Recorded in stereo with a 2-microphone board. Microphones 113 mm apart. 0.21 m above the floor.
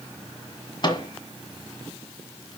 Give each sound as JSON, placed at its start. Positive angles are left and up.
{"t": 0.8, "sound": "a microwave", "side_deg": 40, "distance_m": 1.6}